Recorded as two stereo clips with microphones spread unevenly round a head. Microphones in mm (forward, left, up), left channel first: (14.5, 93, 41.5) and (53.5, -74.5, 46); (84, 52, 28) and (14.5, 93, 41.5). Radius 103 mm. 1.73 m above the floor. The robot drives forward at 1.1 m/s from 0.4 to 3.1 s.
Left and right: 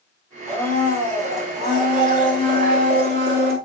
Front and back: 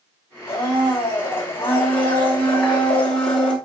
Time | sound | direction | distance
0.5 | a blender | 20° right | 4.5 m